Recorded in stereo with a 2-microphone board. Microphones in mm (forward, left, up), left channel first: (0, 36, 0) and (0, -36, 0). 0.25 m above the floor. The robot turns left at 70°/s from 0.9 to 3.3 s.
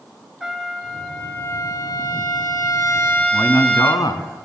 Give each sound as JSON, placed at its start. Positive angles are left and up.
{"t": 0.4, "sound": "a trumpet", "azimuth_deg": -170, "distance_m": 1.7}
{"t": 3.3, "sound": "a man speaking", "side_deg": 55, "distance_m": 2.5}